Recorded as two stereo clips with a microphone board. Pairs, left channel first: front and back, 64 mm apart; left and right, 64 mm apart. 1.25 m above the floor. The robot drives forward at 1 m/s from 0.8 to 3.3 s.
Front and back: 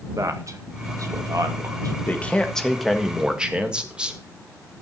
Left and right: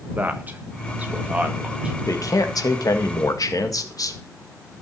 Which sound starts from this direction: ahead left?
A man speaking, at 2.1 s.